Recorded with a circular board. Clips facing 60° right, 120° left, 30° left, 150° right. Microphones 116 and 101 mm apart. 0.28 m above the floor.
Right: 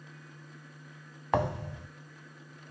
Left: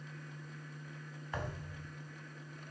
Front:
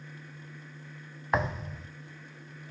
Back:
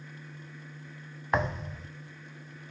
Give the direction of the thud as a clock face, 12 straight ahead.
2 o'clock.